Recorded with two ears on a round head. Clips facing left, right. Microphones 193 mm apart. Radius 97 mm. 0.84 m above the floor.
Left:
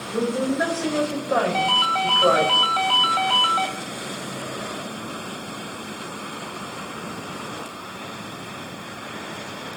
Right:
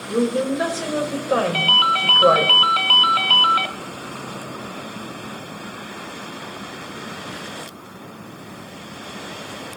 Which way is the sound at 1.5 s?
35° right (ahead or behind).